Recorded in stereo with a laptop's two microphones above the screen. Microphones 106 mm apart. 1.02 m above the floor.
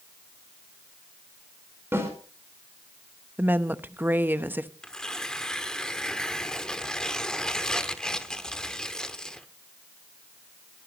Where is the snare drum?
20° right (ahead or behind), 4.5 m.